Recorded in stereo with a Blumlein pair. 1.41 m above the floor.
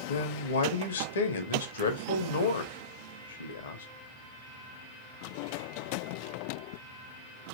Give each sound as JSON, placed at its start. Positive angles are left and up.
{"t": 0.1, "sound": "a man speaking", "azimuth_deg": 65, "distance_m": 0.7}